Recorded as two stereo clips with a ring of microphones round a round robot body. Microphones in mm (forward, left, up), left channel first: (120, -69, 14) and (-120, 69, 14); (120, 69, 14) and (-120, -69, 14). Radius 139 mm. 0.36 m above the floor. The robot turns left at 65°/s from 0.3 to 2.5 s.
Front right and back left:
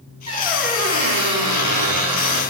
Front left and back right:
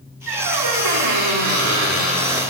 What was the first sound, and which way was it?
A squeak, 100° right.